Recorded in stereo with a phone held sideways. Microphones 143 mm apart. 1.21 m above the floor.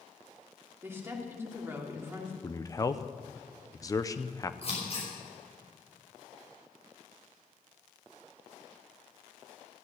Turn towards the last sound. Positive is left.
turn(degrees=45)  # may be behind; listen again after turning